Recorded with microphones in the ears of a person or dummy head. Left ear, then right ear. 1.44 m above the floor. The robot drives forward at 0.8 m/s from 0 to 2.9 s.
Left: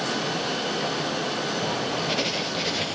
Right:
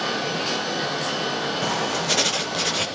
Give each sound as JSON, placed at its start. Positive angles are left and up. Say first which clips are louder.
{"t": 1.6, "sound": "writing", "louder": "right 3 dB", "side_deg": -60, "distance_m": 1.5}